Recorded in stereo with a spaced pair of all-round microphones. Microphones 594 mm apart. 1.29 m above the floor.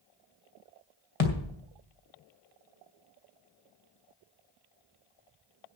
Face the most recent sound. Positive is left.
turn(degrees=65)  # may be behind; listen again after turning